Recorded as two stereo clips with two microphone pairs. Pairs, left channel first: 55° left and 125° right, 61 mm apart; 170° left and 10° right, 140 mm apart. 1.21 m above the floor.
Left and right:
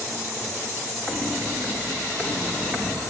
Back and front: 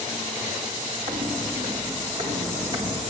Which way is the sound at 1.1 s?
40° right.